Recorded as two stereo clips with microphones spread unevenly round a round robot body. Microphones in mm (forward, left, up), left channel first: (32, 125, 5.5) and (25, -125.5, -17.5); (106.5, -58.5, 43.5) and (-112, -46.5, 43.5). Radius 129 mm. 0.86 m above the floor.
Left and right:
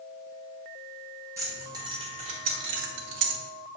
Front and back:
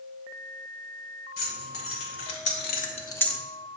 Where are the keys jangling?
15° right, 2.5 m; by 3.4 s 100° right, 1.0 m.